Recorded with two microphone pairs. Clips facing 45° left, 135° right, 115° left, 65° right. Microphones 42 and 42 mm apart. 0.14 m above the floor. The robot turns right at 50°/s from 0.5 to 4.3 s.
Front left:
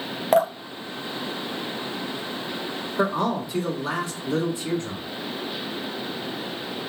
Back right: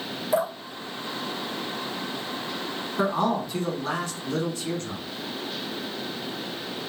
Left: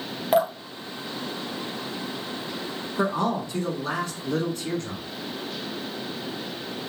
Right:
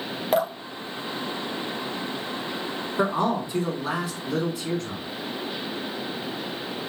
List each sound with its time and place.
0.3 s dripping: 30° left, 0.6 m; by 2.2 s 115° left, 0.6 m
3.0 s a man speaking: 50° right, 1.1 m; by 5.0 s 15° left, 1.1 m